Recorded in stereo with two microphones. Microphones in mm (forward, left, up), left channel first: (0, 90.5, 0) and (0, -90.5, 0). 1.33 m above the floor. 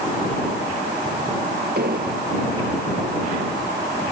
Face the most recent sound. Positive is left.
turn(degrees=-60)  # may be behind; listen again after turning